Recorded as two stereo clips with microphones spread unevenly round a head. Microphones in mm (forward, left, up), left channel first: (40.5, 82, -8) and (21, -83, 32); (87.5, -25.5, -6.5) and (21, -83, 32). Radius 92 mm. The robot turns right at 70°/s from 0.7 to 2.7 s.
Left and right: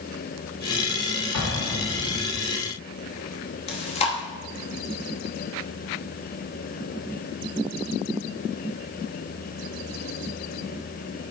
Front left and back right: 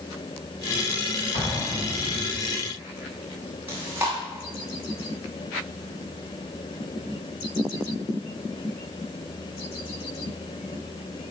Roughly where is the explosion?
Left.